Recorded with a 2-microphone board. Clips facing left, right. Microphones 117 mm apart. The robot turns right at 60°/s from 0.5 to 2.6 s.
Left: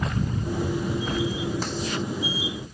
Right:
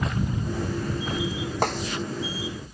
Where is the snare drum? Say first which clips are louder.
Right 5 dB; 60° right (ahead or behind); by 1.8 s 70° right (ahead or behind).